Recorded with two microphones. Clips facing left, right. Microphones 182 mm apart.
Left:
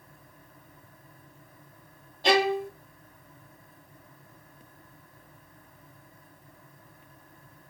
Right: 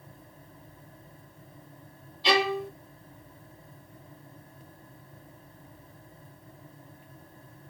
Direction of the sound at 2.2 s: 50° left (ahead or behind).